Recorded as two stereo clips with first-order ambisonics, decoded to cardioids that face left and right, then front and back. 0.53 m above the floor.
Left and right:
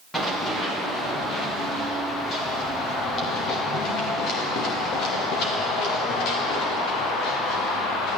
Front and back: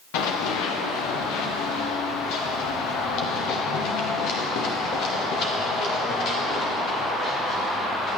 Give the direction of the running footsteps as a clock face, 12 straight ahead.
12 o'clock.